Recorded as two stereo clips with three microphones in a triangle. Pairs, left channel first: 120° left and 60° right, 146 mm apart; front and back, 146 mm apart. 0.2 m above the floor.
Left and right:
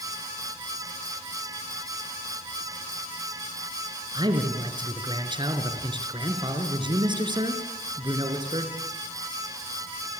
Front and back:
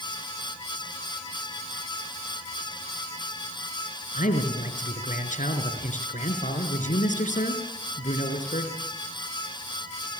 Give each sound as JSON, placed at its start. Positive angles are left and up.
{"t": 4.1, "sound": "a man speaking", "azimuth_deg": -10, "distance_m": 3.5}